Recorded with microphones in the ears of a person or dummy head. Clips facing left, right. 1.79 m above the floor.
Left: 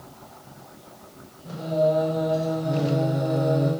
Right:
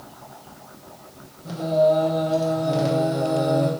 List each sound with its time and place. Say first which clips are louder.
1.4 s singing: right 4 dB; 65° right (ahead or behind), 0.9 m